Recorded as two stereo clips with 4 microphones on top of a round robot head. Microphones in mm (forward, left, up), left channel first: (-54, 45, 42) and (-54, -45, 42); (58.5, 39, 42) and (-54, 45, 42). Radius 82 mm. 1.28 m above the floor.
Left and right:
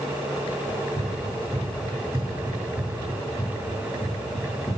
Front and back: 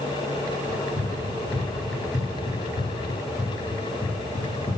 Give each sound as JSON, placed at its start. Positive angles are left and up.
{"t": 0.7, "sound": "running footsteps", "azimuth_deg": -40, "distance_m": 2.0}